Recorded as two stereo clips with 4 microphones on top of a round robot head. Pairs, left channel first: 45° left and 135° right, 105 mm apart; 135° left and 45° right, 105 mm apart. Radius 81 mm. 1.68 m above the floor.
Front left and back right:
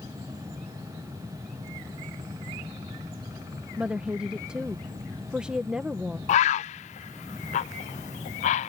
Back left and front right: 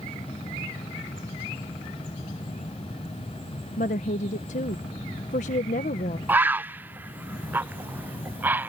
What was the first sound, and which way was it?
A woman speaking, 140° left.